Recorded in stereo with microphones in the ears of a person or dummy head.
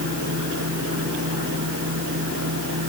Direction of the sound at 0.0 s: 75° right (ahead or behind).